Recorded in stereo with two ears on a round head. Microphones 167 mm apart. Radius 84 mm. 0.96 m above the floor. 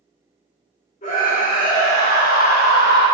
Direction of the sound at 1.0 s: 40° left (ahead or behind).